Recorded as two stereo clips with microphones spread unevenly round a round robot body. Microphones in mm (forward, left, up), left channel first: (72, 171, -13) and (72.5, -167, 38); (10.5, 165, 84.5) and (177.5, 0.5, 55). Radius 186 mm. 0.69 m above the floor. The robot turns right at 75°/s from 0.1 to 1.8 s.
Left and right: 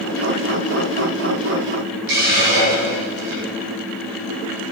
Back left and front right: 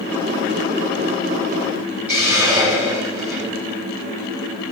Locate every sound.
2.1 s a hiss: 130° right, 8 m